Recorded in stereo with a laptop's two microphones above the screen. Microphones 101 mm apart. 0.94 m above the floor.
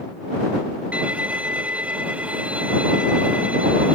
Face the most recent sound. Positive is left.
turn(degrees=-10)  # may be behind; listen again after turning